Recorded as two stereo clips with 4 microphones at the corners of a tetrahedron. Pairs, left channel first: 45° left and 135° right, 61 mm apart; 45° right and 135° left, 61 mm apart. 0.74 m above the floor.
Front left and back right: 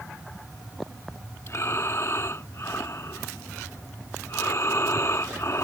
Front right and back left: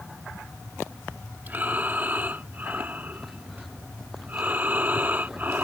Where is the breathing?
80° left.